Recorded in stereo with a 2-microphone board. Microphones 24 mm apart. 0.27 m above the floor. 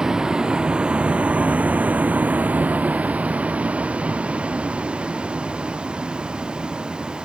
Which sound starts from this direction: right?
A vehicle, at 0.0 s.